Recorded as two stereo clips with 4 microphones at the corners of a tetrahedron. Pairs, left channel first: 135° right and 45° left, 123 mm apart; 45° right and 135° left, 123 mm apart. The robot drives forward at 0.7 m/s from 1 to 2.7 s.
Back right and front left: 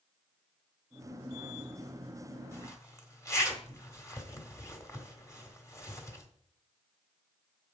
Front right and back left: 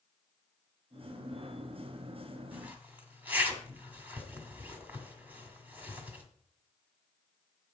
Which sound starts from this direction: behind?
A zipper, at 2.5 s.